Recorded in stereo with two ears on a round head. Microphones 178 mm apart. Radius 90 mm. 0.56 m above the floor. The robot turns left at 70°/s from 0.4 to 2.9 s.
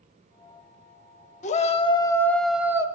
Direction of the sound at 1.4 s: 75° left.